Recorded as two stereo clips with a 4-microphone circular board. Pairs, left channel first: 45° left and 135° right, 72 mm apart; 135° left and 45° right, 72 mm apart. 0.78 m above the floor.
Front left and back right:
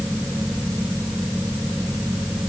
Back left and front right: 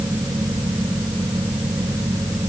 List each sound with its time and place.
Only background noise.